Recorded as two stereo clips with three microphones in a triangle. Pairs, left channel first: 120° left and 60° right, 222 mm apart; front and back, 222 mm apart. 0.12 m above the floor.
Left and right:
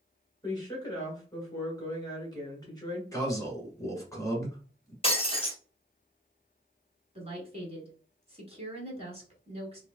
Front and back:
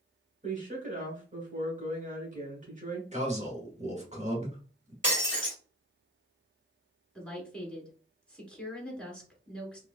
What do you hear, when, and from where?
0.4 s a woman speaking: 175° left, 1.8 m
3.1 s a man speaking: straight behind, 1.4 m
5.0 s breaking glass: straight behind, 1.4 m
7.2 s a woman speaking: 80° right, 1.3 m